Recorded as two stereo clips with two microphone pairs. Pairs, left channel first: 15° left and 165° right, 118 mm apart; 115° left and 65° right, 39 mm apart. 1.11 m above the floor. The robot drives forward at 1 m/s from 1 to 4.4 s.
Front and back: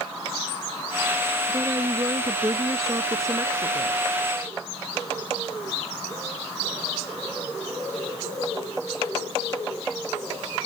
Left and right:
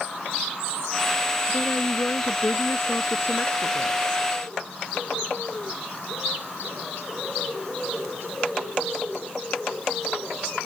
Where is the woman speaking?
130° left; by 4.0 s 135° left.